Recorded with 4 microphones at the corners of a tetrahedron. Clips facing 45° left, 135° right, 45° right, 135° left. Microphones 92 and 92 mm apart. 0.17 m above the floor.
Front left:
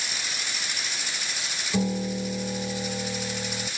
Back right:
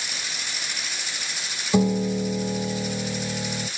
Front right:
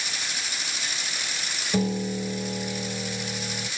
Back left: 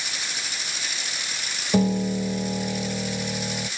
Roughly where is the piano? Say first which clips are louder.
Back right 6 dB, back left 4 dB; behind.